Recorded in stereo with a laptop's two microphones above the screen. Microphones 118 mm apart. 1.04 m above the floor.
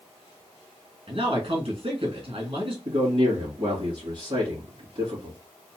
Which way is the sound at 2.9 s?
50° right (ahead or behind).